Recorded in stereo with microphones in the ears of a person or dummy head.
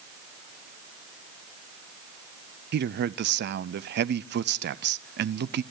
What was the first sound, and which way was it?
A man speaking, 50° right (ahead or behind).